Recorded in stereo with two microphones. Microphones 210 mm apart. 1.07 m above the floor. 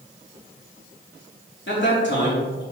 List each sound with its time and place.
1.7 s a man speaking: 60° left (ahead or behind), 3 m